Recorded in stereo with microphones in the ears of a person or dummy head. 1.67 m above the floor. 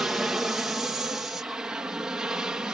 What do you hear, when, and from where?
0.0 s an aircraft: centre (ahead or behind)